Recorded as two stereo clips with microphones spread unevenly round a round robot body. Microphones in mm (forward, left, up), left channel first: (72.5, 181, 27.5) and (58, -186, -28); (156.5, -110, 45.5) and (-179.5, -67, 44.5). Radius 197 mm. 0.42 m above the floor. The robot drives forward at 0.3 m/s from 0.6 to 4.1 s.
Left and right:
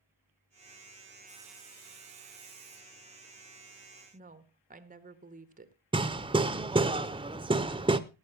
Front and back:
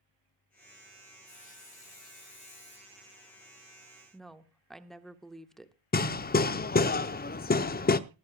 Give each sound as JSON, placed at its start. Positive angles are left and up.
{"t": 1.2, "sound": "sawing", "azimuth_deg": -60, "distance_m": 6.5}
{"t": 4.1, "sound": "a woman speaking", "azimuth_deg": -95, "distance_m": 1.0}
{"t": 5.9, "sound": "hammering", "azimuth_deg": -45, "distance_m": 0.6}